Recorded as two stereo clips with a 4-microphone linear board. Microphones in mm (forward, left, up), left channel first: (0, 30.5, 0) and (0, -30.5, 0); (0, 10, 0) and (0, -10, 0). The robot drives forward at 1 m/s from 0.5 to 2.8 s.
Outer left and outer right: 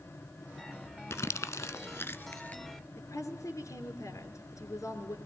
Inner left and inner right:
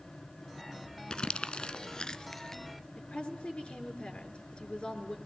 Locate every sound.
1.1 s crumpling: 50° left (ahead or behind), 0.8 m; by 2.6 s 30° left (ahead or behind), 1.4 m
3.0 s a woman speaking: 65° left (ahead or behind), 3 m